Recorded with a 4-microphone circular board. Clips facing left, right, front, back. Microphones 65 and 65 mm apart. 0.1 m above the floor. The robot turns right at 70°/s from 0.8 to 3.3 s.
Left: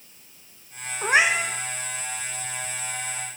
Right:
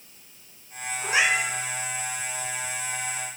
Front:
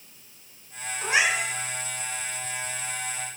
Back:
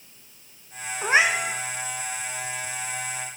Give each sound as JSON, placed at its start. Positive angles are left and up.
{"t": 1.0, "sound": "a cat meowing", "azimuth_deg": 115, "distance_m": 2.5}